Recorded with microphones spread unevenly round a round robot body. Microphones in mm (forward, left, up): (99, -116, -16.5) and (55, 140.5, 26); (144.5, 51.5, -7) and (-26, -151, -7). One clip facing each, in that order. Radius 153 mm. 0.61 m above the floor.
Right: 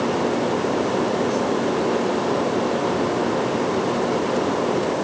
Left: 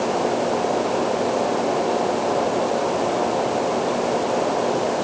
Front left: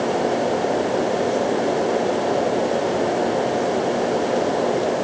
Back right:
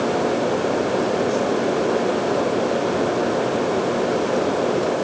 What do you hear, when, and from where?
Only background noise.